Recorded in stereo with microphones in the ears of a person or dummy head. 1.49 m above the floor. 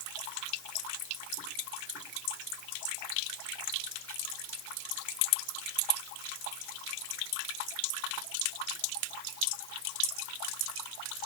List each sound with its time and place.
Only background noise.